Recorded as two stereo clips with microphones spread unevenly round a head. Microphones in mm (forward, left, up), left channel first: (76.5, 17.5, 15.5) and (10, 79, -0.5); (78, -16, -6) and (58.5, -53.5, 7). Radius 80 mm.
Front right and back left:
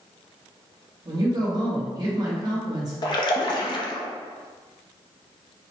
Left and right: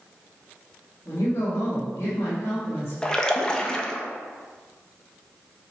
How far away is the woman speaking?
About 1.2 m.